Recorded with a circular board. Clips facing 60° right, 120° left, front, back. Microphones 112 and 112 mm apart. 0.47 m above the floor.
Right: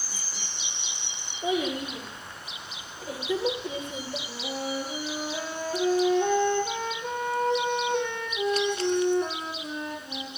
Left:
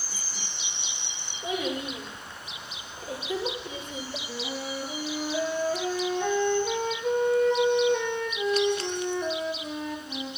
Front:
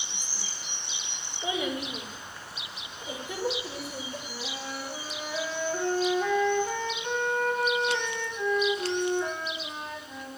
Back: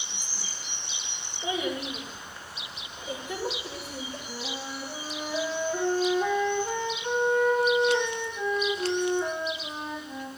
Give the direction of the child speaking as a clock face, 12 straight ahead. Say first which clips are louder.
Right 3 dB, back 1 dB; 2 o'clock.